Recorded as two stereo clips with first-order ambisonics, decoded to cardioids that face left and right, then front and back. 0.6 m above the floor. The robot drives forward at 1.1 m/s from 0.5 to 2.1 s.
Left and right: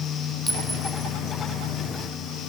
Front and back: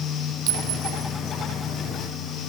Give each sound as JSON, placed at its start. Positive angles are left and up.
{"t": 0.5, "sound": "a clink", "azimuth_deg": -175, "distance_m": 1.6}